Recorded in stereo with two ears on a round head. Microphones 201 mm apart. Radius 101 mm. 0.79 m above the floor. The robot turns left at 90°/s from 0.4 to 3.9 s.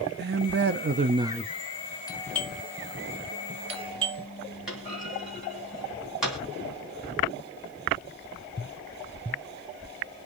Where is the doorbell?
20° left (ahead or behind), 1.0 m; by 4.3 s 25° right (ahead or behind), 1.0 m.